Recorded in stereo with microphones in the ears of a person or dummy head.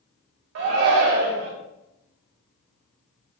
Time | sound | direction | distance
0.6 | a shout | 50° right (ahead or behind) | 0.8 m